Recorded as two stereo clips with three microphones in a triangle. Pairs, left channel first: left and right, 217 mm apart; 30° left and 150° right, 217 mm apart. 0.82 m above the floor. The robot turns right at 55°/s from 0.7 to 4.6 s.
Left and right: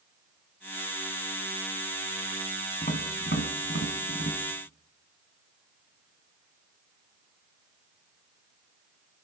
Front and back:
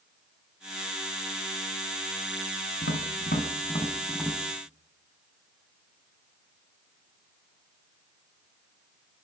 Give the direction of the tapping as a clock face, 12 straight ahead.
11 o'clock.